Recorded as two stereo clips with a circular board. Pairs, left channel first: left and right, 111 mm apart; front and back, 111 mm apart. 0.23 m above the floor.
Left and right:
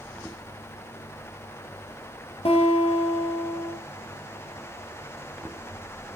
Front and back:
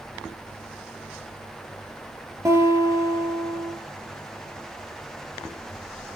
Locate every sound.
2.5 s a guitar: 115° left, 3 m